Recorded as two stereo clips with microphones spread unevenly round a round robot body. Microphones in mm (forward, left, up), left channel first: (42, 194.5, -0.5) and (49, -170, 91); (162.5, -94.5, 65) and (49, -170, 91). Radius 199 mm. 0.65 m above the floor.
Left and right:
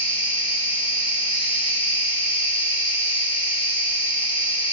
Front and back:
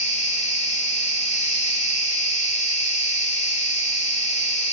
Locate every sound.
0.0 s an insect: 20° left, 4 m